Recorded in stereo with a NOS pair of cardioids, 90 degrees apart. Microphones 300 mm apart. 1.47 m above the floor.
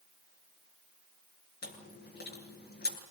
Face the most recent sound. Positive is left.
turn(degrees=35)